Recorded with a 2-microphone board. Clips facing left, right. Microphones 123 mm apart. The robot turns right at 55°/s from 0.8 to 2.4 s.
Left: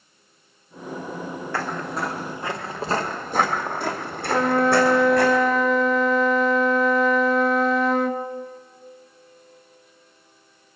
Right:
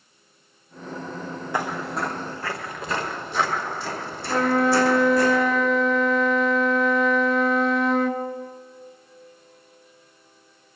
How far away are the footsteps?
About 1.3 m.